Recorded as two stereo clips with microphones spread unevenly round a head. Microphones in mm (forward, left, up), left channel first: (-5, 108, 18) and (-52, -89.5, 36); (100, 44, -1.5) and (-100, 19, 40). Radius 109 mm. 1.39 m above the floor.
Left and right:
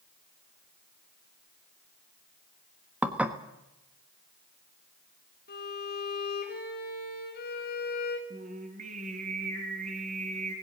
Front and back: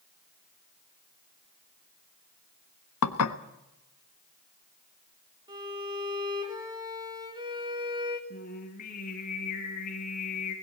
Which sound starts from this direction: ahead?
Dishes clattering, at 3.0 s.